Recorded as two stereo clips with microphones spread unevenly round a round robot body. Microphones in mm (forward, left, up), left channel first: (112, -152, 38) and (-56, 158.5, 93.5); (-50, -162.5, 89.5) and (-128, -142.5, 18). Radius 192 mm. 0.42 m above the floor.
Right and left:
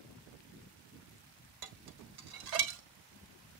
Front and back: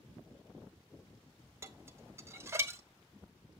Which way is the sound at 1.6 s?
150° left.